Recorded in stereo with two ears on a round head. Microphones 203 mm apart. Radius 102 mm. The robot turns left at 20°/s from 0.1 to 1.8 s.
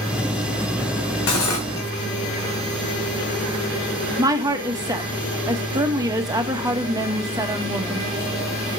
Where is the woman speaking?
15° right (ahead or behind), 1.3 m.